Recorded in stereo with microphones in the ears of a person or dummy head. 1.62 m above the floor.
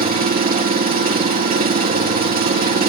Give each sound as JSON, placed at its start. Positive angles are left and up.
{"t": 0.0, "sound": "an engine running", "side_deg": -45, "distance_m": 2.5}